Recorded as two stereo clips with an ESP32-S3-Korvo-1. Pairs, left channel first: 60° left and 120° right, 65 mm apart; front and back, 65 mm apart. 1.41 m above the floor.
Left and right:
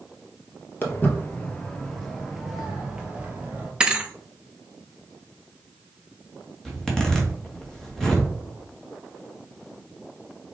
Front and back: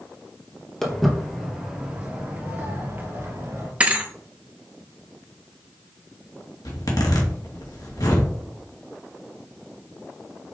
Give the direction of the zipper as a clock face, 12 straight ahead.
1 o'clock.